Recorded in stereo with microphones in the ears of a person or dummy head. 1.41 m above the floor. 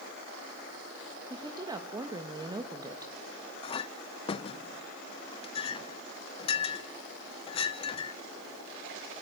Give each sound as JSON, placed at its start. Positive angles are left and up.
{"t": 1.3, "sound": "a woman speaking", "side_deg": -10, "distance_m": 2.0}
{"t": 3.6, "sound": "a clink", "side_deg": 35, "distance_m": 0.5}